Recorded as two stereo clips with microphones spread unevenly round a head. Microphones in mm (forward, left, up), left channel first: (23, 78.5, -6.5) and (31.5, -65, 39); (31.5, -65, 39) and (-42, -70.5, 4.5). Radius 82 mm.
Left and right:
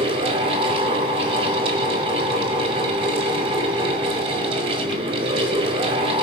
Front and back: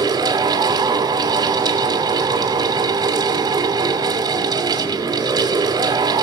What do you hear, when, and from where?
0.0 s a fan: 140° right, 2.5 m